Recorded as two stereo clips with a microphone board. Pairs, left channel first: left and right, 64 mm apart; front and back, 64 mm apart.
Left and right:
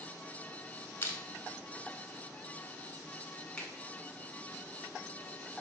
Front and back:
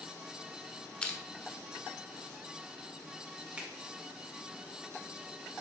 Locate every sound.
1.0 s crushing: 60° left, 0.6 m
3.6 s a finger snap: 150° left, 1.3 m